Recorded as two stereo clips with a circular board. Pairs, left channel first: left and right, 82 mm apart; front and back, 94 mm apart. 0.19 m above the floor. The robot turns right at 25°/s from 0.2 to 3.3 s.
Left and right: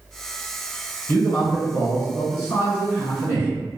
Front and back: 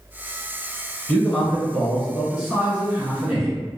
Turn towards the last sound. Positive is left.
turn(degrees=105)